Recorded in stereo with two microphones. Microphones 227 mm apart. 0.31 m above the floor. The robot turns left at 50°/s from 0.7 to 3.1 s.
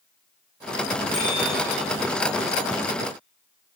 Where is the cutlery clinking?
I don't hear cutlery clinking.